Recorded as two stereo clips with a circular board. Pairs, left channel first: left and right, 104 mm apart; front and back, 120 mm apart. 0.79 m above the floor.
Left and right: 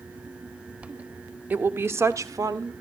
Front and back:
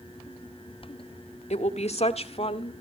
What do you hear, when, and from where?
1.5 s a woman speaking: 15° right, 1.7 m; by 2.7 s 40° right, 2 m